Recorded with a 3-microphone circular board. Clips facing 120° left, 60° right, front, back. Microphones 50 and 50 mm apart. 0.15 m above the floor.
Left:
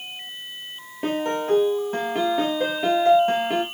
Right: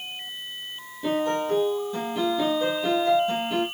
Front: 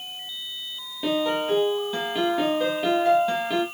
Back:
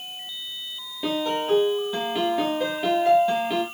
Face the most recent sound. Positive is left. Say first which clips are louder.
# left 1 dB, front 1 dB
turn(degrees=95)